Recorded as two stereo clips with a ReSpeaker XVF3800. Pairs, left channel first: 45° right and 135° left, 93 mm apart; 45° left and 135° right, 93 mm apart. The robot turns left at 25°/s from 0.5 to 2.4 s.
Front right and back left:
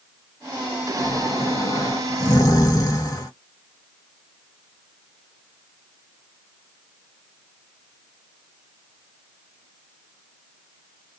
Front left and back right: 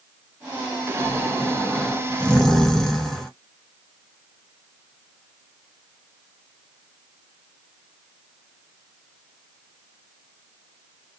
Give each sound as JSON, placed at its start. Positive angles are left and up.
{"t": 1.0, "sound": "snoring", "azimuth_deg": 0, "distance_m": 0.9}